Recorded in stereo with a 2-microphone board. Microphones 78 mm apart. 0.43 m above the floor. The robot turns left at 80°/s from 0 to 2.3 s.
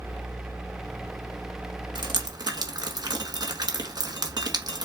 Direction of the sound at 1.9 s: 85° right.